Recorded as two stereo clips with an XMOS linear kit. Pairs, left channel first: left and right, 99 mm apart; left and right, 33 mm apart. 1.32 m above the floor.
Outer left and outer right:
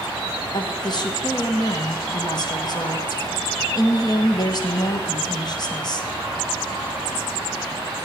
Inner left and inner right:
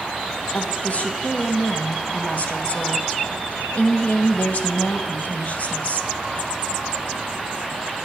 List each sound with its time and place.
0.5 s a woman speaking: 45° left (ahead or behind), 1.6 m